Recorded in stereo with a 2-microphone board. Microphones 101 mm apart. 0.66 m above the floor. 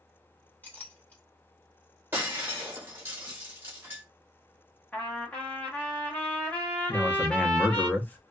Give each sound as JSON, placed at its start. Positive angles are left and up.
{"t": 0.6, "sound": "a clink", "side_deg": 20, "distance_m": 1.3}
{"t": 2.1, "sound": "breaking glass", "side_deg": -20, "distance_m": 1.5}
{"t": 4.9, "sound": "a trumpet", "side_deg": 15, "distance_m": 1.1}
{"t": 6.9, "sound": "a man speaking", "side_deg": 20, "distance_m": 0.5}